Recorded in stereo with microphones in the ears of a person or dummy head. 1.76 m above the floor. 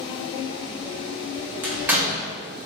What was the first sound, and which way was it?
A door slam, 15° right (ahead or behind).